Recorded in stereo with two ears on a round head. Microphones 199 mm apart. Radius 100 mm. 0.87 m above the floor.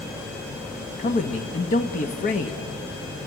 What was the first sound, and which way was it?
A man speaking, 35° left (ahead or behind).